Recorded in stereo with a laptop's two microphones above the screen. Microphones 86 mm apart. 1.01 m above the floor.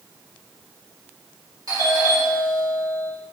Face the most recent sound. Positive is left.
turn(degrees=-50)  # may be behind; listen again after turning